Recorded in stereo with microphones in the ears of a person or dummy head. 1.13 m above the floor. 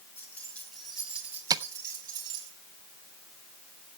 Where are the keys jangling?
15° left (ahead or behind), 3 m; by 2.5 s 25° right (ahead or behind), 4 m.